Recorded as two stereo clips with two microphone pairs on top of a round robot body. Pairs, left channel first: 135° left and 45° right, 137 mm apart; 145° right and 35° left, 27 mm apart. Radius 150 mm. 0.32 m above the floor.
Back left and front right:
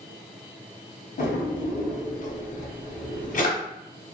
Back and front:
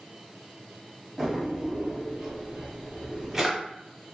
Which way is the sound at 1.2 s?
105° left.